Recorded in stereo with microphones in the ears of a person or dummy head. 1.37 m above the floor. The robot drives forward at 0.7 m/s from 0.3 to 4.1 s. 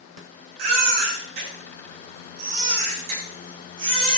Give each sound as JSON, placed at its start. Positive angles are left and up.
{"t": 0.6, "sound": "a baby crying", "side_deg": -70, "distance_m": 4.0}